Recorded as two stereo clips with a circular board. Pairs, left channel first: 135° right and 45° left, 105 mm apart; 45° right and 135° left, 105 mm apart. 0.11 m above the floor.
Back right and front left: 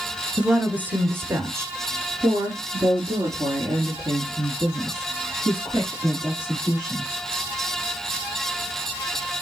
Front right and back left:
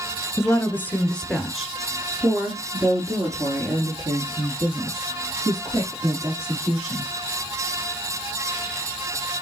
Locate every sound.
0.4 s a woman speaking: 25° right, 1.2 m; by 7.1 s 100° left, 3.5 m